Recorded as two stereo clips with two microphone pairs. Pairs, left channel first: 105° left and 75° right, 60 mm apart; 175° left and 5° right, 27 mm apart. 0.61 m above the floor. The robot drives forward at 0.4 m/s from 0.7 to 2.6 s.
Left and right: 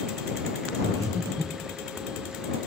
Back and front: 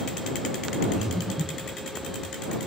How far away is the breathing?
About 9 m.